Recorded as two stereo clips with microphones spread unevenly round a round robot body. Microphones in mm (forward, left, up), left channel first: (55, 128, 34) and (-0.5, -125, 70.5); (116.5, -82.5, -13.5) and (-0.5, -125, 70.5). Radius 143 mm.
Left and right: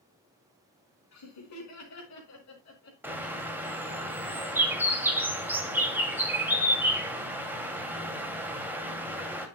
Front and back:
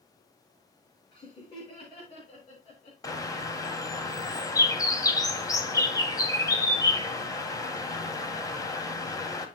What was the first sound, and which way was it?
Laughter, 80° left.